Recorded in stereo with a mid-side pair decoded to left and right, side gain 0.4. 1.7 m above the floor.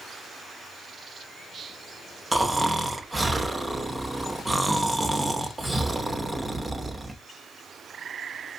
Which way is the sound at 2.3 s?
20° right.